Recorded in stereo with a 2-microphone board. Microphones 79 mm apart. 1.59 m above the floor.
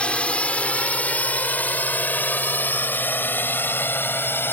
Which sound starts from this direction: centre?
A drone, at 0.0 s.